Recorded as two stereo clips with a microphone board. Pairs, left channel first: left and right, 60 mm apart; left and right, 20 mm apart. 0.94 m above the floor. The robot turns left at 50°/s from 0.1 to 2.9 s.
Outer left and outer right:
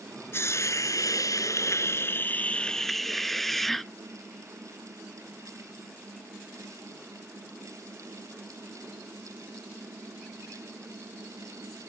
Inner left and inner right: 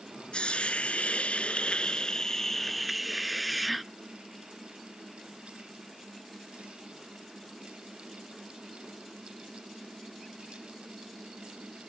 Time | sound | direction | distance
0.3 | a hiss | 130° left | ?